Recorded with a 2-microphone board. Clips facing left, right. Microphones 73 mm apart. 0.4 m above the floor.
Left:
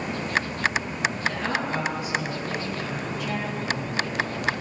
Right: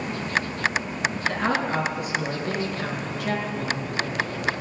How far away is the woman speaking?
About 4 m.